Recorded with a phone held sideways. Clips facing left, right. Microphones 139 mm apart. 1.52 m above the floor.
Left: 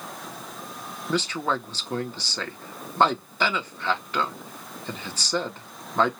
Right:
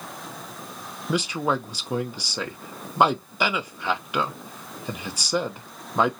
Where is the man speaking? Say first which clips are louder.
Right 2 dB; 10° right (ahead or behind), 0.7 m.